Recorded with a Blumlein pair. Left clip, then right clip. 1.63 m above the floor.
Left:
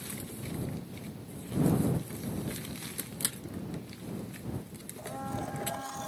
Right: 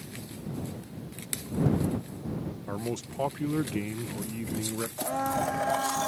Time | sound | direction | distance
2.7 | a man speaking | 50° right | ?
5.0 | a blender | 25° right | ?